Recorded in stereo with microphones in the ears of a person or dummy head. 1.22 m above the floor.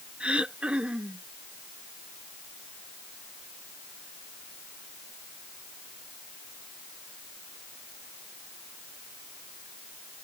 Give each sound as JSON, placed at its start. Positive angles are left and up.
{"t": 0.2, "sound": "throat clearing", "side_deg": -5}